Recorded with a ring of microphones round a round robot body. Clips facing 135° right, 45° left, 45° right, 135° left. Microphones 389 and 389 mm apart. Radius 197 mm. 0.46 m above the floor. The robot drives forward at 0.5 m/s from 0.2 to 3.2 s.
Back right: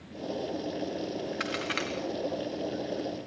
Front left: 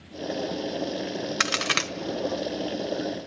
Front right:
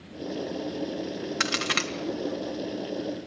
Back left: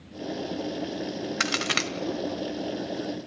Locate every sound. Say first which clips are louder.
1.4 s a crack: front left 2 dB, back left 1 dB; 45° left, 1.6 m; by 1.9 s 55° left, 1.5 m